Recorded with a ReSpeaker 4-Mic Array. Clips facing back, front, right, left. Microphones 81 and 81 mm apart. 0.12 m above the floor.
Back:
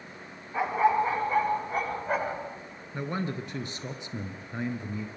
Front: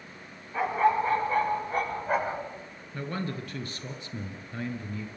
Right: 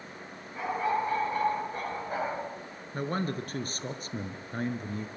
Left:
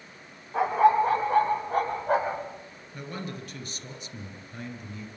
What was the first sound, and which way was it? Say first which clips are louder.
A dog barking: even, left 9 dB; 100° left.